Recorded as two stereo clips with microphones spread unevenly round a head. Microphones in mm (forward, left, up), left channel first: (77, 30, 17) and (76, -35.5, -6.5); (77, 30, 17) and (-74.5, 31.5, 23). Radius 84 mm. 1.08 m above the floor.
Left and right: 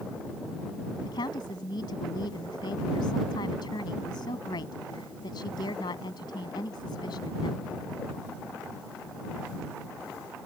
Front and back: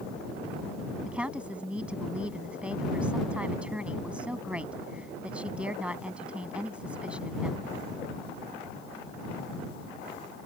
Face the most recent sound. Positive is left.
turn(degrees=95)